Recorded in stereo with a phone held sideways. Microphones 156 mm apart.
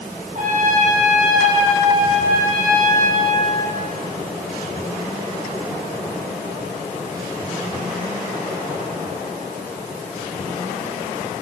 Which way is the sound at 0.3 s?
60° right (ahead or behind).